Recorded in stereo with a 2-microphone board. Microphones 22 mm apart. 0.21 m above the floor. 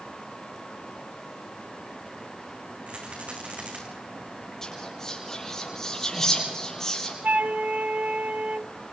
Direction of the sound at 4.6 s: 20° left (ahead or behind).